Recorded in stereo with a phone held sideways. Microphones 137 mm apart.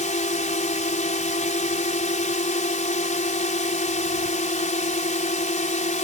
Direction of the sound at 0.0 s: 65° left (ahead or behind).